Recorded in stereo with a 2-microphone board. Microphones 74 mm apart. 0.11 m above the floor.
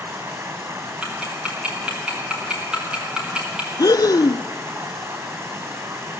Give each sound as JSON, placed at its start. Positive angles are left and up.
{"t": 0.0, "sound": "running water", "side_deg": -40, "distance_m": 3.5}
{"t": 1.0, "sound": "ticking", "side_deg": -15, "distance_m": 5.0}
{"t": 3.8, "sound": "breathing", "side_deg": 65, "distance_m": 0.5}